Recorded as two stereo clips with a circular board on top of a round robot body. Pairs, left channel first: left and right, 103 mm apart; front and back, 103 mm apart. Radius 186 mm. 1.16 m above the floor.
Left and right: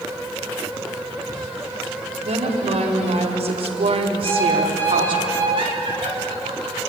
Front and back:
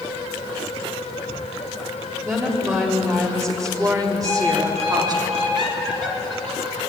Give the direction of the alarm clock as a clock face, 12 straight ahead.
7 o'clock.